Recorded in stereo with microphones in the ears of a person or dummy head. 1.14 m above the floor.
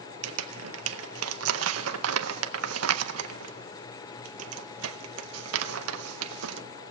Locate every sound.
0.2 s crumpling: 80° right, 0.7 m